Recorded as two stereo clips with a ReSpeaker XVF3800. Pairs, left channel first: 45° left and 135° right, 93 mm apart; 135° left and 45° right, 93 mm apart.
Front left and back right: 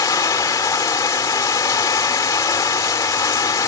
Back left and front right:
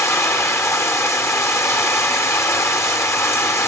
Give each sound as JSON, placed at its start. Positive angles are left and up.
{"t": 0.0, "sound": "running water", "azimuth_deg": 85, "distance_m": 1.2}